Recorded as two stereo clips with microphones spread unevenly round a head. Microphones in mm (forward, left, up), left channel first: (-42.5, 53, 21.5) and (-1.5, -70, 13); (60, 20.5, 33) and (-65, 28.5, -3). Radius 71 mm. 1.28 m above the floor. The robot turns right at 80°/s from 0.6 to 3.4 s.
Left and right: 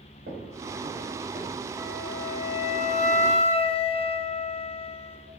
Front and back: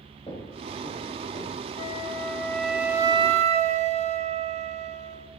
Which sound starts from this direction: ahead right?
Footsteps, at 0.3 s.